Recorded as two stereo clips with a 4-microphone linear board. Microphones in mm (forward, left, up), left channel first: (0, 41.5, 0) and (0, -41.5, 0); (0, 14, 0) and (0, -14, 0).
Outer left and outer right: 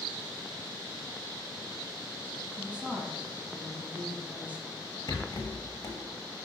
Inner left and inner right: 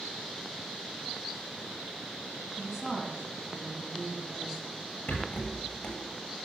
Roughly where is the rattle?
Left.